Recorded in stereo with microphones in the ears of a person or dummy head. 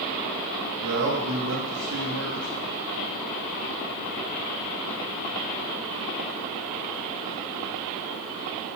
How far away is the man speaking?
About 3 m.